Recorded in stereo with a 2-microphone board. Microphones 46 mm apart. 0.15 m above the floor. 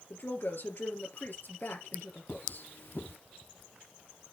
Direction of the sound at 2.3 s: 65° left (ahead or behind).